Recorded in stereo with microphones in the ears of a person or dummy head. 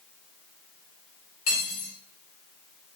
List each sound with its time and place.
1.5 s cutlery clinking: 45° left (ahead or behind), 2.5 m